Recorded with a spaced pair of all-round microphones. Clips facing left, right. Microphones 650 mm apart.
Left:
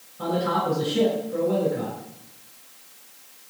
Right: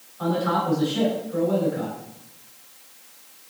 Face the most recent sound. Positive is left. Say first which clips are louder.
# right 1 dB
turn(degrees=55)  # may be behind; listen again after turning